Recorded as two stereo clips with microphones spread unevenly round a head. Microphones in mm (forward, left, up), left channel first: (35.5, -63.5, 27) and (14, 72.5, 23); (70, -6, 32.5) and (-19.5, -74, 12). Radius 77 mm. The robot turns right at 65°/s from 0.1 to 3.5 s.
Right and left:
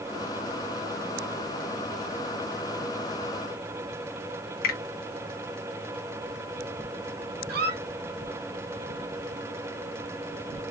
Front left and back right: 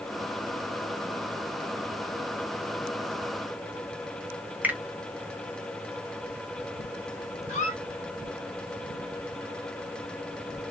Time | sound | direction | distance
4.6 | a finger snap | 65° right | 1.1 m
7.5 | a squeak | 85° left | 0.9 m